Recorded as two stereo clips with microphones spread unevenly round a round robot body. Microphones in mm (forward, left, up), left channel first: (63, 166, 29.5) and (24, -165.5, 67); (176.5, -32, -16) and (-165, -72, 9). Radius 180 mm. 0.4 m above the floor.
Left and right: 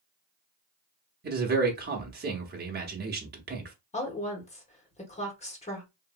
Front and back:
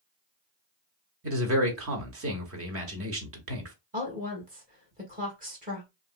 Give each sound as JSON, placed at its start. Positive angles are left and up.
{"t": 1.2, "sound": "a man speaking", "azimuth_deg": -150, "distance_m": 0.9}
{"t": 3.9, "sound": "a woman speaking", "azimuth_deg": 130, "distance_m": 1.5}